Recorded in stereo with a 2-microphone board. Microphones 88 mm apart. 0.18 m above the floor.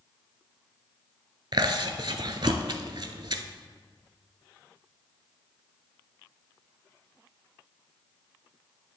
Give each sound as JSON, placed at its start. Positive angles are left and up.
{"t": 1.5, "sound": "chewing", "side_deg": -60, "distance_m": 0.5}